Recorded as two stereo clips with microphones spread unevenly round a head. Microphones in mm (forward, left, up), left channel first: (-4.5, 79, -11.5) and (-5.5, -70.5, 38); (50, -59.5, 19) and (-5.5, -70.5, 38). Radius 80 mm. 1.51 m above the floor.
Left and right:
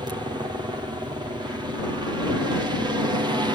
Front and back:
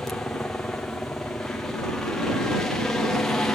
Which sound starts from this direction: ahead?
A helicopter, at 0.0 s.